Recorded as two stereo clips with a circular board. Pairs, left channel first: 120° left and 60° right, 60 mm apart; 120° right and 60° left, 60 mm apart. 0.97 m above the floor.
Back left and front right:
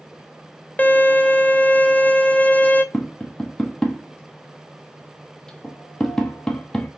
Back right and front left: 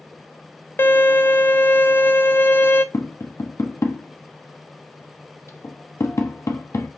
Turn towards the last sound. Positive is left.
turn(degrees=-160)